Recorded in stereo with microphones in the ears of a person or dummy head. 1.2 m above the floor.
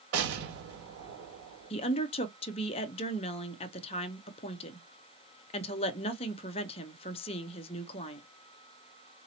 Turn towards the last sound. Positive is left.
turn(degrees=25)  # may be behind; listen again after turning